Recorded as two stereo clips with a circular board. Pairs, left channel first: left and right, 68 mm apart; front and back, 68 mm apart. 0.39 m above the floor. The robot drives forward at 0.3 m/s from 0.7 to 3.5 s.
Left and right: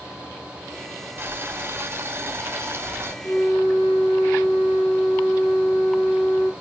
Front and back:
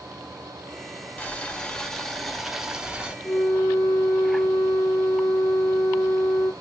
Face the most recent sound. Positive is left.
turn(degrees=95)